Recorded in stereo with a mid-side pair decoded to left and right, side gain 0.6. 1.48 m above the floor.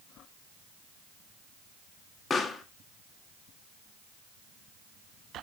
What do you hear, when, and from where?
2.3 s a pop: 30° left, 1.8 m